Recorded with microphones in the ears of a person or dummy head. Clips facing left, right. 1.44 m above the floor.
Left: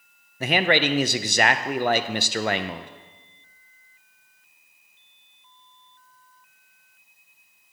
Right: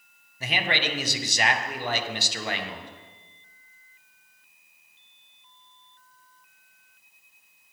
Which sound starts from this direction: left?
A man speaking, at 0.4 s.